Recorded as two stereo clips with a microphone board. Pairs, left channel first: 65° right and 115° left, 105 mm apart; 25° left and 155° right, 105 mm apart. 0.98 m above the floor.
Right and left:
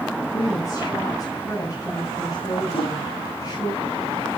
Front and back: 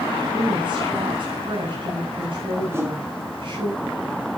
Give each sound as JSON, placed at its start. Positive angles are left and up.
{"t": 0.3, "sound": "a woman speaking", "azimuth_deg": -120, "distance_m": 6.5}
{"t": 2.7, "sound": "a whoosh", "azimuth_deg": -90, "distance_m": 4.5}